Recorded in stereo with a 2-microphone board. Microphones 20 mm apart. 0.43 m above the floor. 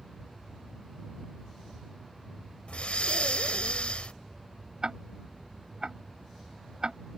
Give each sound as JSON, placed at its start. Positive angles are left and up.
{"t": 2.7, "sound": "breathing", "side_deg": 75}
{"t": 4.8, "sound": "ticking", "side_deg": -45}